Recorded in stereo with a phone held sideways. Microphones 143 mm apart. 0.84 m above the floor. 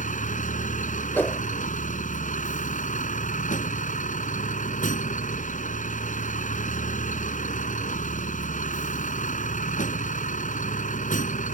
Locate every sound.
0.0 s a vehicle: 70° left (ahead or behind)
1.1 s a whoosh: 15° left (ahead or behind)